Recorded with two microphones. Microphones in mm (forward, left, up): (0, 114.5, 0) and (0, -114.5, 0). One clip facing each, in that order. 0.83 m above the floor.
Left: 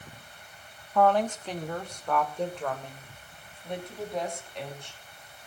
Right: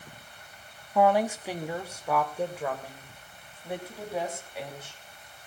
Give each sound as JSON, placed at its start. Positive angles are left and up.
{"t": 0.9, "sound": "a woman speaking", "side_deg": -10, "distance_m": 1.1}